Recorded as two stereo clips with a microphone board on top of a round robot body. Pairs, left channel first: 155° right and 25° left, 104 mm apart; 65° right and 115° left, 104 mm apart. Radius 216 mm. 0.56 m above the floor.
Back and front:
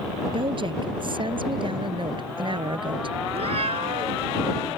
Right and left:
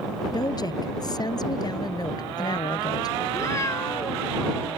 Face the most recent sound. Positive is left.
turn(degrees=-5)